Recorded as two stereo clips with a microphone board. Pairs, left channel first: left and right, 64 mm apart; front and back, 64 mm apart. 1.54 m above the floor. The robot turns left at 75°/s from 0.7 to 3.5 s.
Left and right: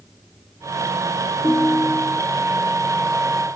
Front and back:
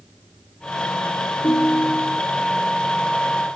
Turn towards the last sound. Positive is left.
turn(degrees=-125)